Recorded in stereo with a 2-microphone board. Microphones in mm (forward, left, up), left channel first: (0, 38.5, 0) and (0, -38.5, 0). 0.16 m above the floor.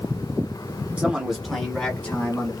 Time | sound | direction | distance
1.0 | a man speaking | 15° right (ahead or behind) | 1.2 m